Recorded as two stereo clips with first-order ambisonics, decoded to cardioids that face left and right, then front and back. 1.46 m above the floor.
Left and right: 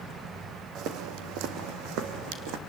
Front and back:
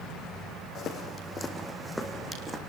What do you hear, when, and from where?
0.8 s footsteps: 55° right, 3 m; by 2.6 s 105° right, 3.5 m